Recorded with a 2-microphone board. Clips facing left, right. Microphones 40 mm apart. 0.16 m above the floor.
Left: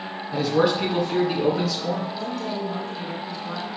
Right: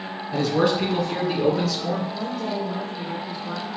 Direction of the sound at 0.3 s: 5° left (ahead or behind).